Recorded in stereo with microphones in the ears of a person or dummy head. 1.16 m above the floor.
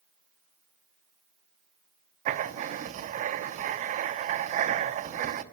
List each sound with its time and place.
2.2 s writing: 40° right (ahead or behind), 1.0 m